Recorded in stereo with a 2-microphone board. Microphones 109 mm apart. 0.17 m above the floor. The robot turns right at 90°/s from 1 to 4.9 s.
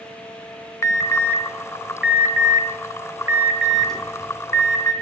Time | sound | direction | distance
0.8 | an alarm | 30° left (ahead or behind) | 1.0 m